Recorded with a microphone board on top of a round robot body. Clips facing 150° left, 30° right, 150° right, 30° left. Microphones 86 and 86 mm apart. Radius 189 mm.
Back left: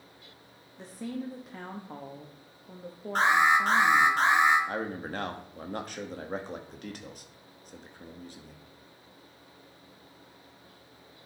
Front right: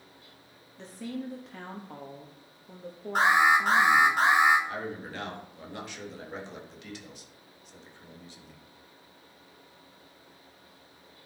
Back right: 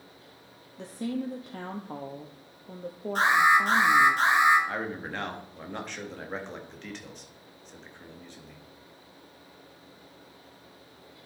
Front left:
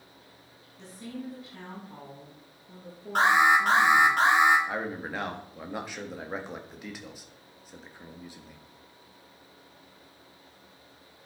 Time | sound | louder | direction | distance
0.8 | a woman speaking | even, back right 7 dB | 130° right | 1.3 m
3.1 | an alarm | front right 1 dB, front left 1 dB | 50° left | 4 m
4.7 | a man speaking | back left 2 dB, even | 110° left | 1.9 m